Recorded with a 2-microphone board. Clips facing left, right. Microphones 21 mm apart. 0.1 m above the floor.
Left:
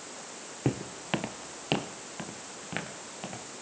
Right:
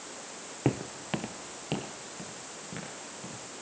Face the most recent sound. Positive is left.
turn(degrees=45)  # may be behind; listen again after turning